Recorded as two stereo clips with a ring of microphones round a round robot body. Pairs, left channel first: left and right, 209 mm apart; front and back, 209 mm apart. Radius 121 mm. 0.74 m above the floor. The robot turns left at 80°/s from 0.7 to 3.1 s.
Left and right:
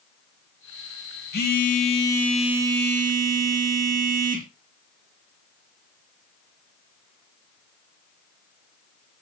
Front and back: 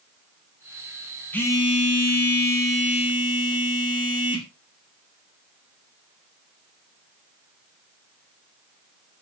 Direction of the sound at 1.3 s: 85° left.